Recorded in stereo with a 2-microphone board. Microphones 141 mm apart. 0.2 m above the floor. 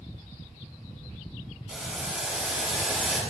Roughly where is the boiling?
Centre.